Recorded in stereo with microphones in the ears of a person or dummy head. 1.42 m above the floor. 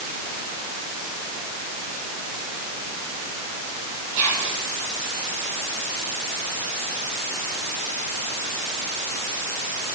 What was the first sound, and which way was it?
Whispering, 65° right (ahead or behind).